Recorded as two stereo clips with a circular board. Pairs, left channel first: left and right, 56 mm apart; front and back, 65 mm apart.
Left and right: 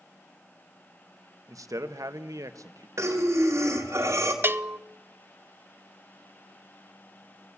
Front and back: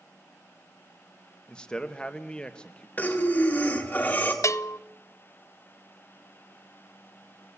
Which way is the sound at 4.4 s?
40° right.